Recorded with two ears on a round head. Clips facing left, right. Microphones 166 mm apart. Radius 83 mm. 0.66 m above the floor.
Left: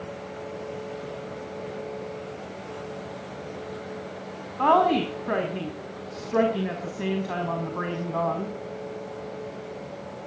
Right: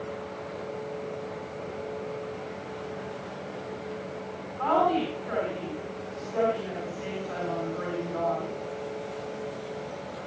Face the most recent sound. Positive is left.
turn(degrees=70)  # may be behind; listen again after turning